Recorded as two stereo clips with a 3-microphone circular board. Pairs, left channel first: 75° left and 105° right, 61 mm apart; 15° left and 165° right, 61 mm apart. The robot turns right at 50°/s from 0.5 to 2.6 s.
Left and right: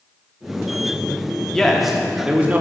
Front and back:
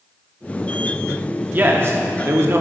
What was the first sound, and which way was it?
A man speaking, 155° left.